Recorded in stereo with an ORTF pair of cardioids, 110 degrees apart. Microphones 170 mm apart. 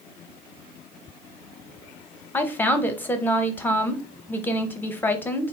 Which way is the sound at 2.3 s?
10° left.